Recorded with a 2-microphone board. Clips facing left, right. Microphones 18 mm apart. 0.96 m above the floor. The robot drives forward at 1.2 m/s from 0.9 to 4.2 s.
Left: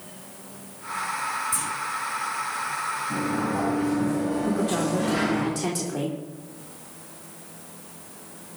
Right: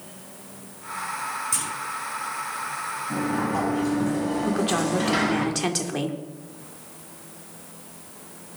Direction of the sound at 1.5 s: 60° right (ahead or behind).